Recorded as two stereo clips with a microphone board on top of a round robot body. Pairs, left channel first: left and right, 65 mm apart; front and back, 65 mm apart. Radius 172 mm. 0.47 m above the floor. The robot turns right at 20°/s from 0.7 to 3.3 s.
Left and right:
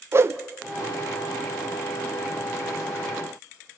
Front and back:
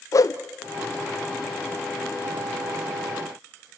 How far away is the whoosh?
About 0.8 m.